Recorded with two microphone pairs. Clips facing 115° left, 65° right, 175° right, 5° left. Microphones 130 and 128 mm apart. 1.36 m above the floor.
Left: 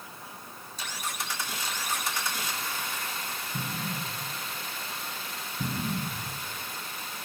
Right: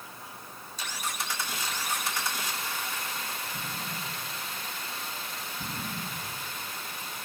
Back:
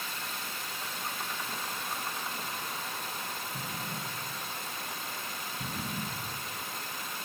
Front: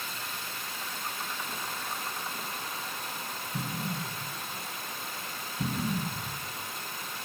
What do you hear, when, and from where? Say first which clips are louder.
3.5 s an explosion: left 3 dB, front 4 dB; 55° left, 8 m